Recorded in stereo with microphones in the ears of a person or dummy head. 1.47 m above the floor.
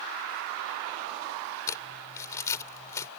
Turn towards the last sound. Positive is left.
turn(degrees=15)  # may be behind; listen again after turning